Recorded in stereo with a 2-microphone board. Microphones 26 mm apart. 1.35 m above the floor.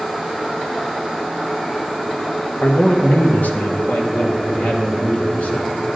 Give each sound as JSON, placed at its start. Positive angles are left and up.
{"t": 2.6, "sound": "a man speaking", "side_deg": 75, "distance_m": 1.2}